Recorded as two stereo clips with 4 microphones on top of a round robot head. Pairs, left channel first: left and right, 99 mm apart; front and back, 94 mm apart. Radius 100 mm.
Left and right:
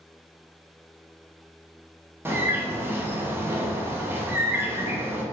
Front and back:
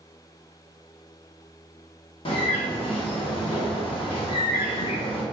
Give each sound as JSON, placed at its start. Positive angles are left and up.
{"t": 2.2, "sound": "a bird", "azimuth_deg": -20, "distance_m": 0.9}